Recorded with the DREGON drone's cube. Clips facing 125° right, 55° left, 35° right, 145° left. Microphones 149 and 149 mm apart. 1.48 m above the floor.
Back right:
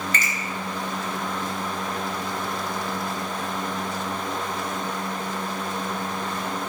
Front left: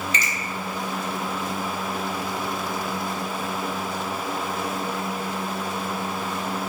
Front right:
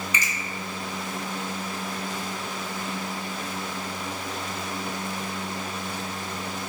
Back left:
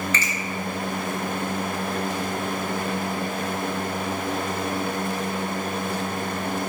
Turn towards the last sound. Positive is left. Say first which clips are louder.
# even, back left 3 dB
turn(degrees=-110)